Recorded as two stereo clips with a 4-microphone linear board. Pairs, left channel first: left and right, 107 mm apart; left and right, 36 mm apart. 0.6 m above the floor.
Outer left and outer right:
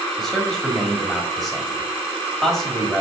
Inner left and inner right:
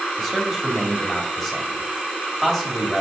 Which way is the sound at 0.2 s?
Centre (ahead or behind).